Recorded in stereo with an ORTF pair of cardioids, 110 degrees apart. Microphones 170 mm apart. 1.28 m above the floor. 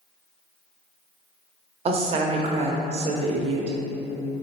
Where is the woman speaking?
40° right, 0.7 m.